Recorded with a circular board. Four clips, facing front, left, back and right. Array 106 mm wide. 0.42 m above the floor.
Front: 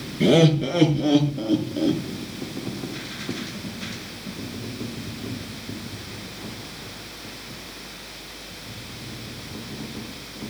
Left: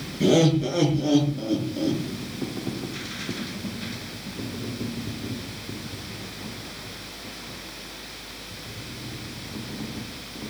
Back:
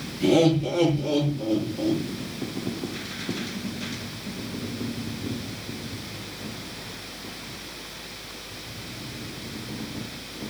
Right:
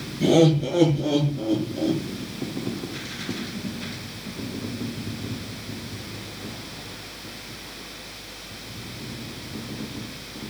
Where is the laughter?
15° left, 6 m; by 2.0 s 5° left, 6 m.